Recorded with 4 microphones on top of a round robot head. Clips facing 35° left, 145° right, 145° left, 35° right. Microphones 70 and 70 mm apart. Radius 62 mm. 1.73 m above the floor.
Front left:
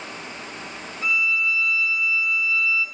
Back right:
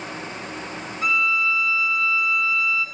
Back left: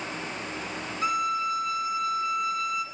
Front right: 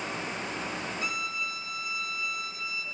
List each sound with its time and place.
1.0 s a violin: 165° right, 4 m